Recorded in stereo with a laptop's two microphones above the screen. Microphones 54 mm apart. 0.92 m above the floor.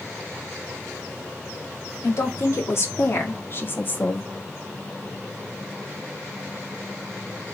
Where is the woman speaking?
55° left (ahead or behind), 3 m; by 4.3 s 30° left (ahead or behind), 1.5 m.